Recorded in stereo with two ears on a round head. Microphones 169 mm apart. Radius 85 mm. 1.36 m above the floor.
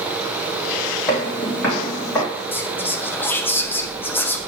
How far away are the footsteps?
About 3.5 m.